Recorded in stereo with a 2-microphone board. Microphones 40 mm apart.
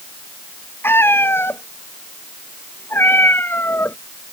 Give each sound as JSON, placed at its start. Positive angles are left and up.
{"t": 0.8, "sound": "a cat meowing", "side_deg": 70}